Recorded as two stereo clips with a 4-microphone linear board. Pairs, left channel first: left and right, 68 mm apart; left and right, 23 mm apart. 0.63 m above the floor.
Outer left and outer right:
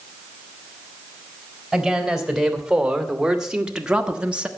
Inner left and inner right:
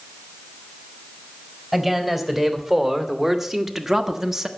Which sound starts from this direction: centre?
A man speaking, at 1.7 s.